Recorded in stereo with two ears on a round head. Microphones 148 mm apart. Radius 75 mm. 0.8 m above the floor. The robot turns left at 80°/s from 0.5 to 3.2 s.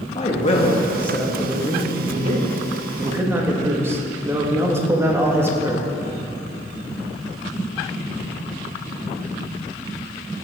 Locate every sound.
0.1 s a man speaking: 60° left, 1.4 m; by 5.9 s 155° right, 1.4 m